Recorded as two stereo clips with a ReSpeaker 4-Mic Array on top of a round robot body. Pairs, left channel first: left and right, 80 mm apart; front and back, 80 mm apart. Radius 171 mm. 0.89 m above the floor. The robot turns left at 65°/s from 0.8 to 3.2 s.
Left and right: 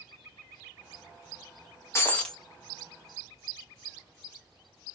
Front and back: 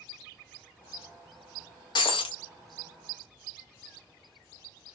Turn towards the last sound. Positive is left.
turn(degrees=-50)